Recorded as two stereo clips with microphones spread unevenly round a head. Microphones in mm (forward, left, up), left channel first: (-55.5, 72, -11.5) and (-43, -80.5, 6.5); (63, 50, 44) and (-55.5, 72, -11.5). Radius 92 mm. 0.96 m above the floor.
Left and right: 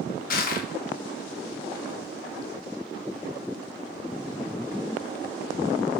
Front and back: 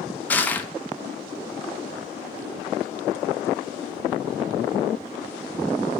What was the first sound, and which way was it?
Crushing, 80° left.